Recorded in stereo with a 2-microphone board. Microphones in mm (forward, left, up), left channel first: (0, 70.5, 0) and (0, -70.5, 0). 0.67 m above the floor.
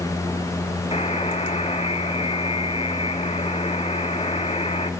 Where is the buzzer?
45° left (ahead or behind), 1.5 m.